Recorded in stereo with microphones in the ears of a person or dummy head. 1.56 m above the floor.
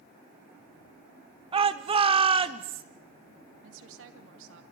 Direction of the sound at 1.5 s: 25° right (ahead or behind).